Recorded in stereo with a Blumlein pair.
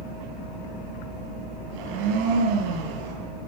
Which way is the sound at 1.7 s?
45° right.